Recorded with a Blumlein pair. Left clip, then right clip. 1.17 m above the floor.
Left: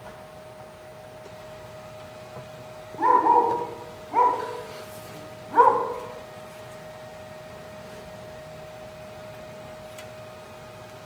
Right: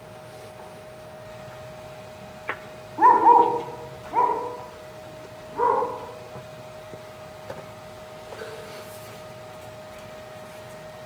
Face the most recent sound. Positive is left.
turn(degrees=45)